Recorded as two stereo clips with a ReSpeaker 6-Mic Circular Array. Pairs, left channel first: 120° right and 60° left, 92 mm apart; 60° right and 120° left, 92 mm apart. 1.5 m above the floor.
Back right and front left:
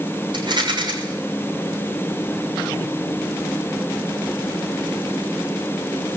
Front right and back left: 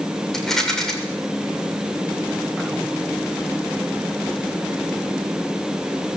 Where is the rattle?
25° left, 6.5 m.